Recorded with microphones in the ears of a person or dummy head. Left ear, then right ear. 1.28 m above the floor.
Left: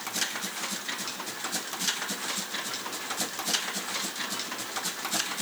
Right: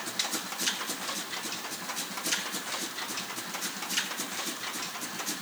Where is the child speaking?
I don't hear a child speaking.